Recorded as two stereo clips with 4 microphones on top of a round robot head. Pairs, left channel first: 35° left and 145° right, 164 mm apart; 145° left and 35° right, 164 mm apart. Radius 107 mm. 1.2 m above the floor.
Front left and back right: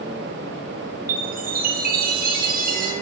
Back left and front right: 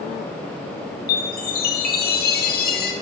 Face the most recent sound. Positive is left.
turn(degrees=180)